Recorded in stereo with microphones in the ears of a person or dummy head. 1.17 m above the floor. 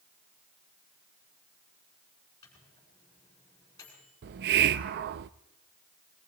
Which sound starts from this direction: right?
A hiss, at 4.2 s.